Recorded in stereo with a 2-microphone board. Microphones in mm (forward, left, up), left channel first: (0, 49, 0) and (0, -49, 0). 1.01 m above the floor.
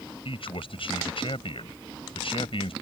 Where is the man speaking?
65° left (ahead or behind).